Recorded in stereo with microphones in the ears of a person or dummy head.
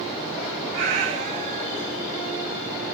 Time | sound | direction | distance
0.7 | a cat meowing | 30° right (ahead or behind) | 0.8 m